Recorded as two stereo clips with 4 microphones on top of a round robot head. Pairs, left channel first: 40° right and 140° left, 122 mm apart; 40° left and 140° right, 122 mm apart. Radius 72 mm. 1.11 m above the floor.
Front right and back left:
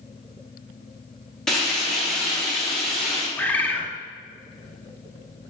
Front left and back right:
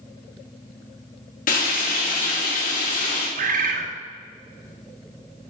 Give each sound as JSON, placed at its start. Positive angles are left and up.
{"t": 1.5, "sound": "frying", "azimuth_deg": 45, "distance_m": 3.5}
{"t": 3.4, "sound": "a bird", "azimuth_deg": -120, "distance_m": 1.2}